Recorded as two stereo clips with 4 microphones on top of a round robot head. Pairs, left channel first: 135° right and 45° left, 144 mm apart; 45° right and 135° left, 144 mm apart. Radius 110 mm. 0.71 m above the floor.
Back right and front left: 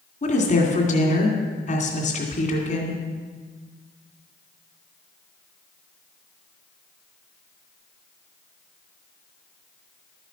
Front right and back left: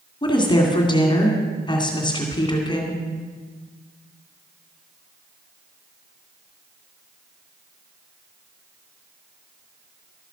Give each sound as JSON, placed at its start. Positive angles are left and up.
{"t": 0.2, "sound": "a woman speaking", "azimuth_deg": -100, "distance_m": 2.5}